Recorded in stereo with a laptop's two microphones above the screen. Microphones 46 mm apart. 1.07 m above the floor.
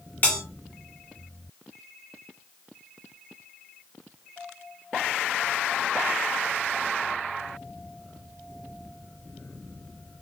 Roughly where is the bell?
Left.